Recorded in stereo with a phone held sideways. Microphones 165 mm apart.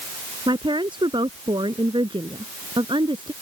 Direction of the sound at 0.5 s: 30° right (ahead or behind).